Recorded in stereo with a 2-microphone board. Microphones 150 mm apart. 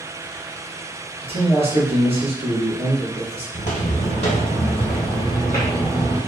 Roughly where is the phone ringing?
I don't hear a phone ringing.